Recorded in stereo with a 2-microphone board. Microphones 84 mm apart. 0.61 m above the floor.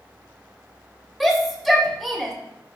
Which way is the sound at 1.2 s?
Centre (ahead or behind).